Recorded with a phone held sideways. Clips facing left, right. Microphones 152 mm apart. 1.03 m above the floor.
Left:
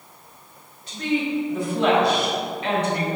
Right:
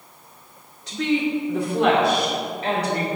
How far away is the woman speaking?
About 2 m.